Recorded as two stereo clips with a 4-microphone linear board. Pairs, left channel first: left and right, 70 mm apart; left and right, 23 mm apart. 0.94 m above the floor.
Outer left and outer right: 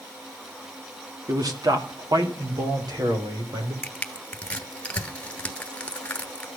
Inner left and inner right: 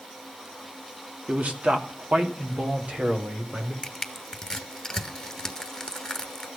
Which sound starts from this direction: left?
Crushing, at 3.8 s.